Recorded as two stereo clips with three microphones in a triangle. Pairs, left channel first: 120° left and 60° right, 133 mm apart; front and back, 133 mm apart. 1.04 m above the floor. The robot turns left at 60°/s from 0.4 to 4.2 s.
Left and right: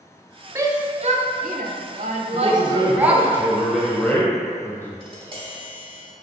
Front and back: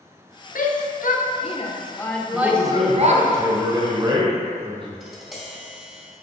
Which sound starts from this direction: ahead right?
A man speaking, at 2.3 s.